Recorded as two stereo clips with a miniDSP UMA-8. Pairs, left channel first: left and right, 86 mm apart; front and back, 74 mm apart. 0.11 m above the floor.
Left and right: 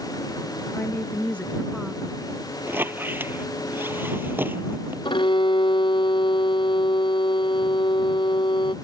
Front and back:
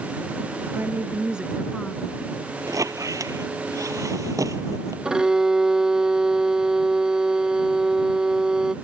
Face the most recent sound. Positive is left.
turn(degrees=100)